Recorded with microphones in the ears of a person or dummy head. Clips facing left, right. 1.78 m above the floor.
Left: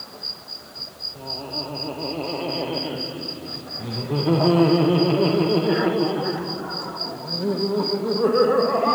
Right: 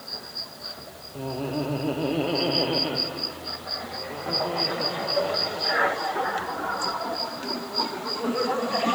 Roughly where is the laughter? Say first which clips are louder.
Right 5 dB; right.